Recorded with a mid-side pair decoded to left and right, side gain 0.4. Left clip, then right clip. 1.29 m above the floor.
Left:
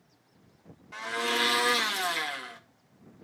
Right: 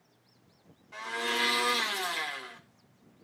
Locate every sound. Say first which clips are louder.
0.9 s a blender: left 2 dB; 45° left, 1.9 m